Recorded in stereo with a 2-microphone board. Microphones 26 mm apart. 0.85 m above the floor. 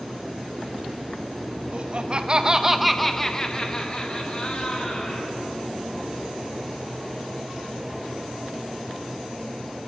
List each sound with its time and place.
1.7 s laughter: 45° right (ahead or behind), 1.4 m; by 5.3 s 50° left (ahead or behind), 2.5 m